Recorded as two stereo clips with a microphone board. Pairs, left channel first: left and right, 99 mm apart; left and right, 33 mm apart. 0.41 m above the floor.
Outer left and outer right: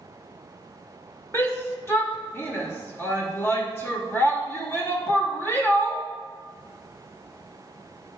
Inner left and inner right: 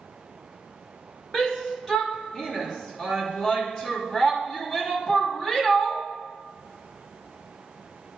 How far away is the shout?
About 0.9 m.